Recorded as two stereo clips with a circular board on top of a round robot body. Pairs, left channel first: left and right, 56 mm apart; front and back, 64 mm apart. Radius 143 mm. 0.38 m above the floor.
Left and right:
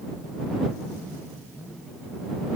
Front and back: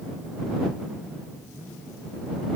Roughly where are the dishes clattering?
No dishes clattering in this recording.